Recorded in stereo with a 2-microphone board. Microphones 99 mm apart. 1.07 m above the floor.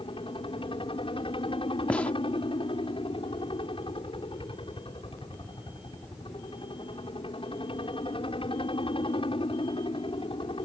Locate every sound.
0.0 s a helicopter: 65° left (ahead or behind)
1.9 s a gunshot: 15° left (ahead or behind)